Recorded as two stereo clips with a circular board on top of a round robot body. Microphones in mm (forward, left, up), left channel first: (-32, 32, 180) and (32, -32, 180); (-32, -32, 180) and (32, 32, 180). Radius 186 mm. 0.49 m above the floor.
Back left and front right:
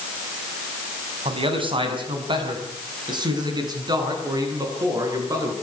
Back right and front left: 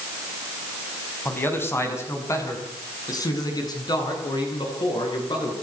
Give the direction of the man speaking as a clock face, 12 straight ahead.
2 o'clock.